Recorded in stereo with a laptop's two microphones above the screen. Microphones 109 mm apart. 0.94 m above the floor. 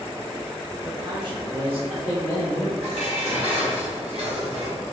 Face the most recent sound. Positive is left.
turn(degrees=-85)